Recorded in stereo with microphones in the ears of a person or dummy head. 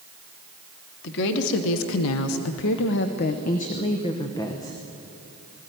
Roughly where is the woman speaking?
Left.